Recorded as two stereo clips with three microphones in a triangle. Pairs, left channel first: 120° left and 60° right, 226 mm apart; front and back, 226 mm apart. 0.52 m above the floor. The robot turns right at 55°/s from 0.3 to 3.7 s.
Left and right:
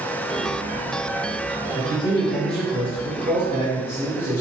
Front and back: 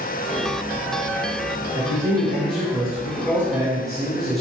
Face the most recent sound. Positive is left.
turn(degrees=-90)